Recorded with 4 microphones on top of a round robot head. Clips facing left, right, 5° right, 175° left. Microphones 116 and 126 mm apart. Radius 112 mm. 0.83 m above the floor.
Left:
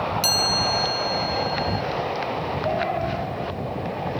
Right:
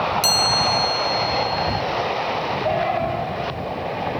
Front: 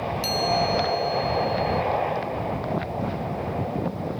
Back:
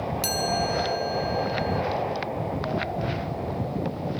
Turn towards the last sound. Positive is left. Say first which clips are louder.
# right 3 dB, front 4 dB
turn(degrees=-135)